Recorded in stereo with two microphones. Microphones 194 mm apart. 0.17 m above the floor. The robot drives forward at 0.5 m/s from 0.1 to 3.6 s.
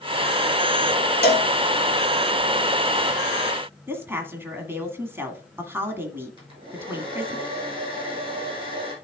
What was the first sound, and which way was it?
A cowbell, 55° left (ahead or behind).